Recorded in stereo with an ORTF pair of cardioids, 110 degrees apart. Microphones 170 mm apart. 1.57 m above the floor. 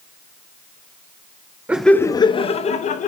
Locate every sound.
1.7 s laughter: 10° right, 0.6 m; by 3.1 s 45° left, 1.5 m